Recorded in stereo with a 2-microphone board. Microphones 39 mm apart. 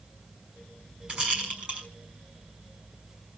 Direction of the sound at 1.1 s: 25° right (ahead or behind).